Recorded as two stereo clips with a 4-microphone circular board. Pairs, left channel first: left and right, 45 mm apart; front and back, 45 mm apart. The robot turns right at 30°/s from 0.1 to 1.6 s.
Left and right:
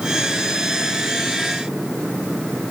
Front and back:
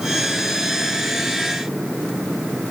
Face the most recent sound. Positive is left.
No sound to turn to.